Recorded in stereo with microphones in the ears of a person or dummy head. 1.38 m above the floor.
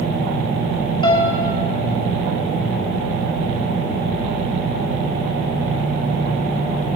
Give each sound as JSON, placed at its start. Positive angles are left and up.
{"t": 1.0, "sound": "a piano", "side_deg": 25, "distance_m": 3.0}